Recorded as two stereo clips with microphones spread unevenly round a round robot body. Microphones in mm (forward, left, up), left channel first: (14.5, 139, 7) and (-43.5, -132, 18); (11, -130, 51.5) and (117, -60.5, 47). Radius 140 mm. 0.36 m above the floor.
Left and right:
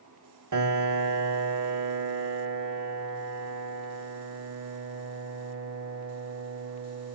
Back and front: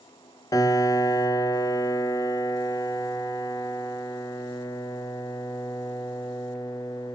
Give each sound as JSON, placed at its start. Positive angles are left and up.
{"t": 0.5, "sound": "a piano", "azimuth_deg": -85, "distance_m": 0.6}